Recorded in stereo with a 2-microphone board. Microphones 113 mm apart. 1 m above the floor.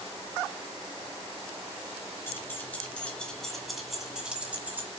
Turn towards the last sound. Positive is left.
turn(degrees=-20)  # may be behind; listen again after turning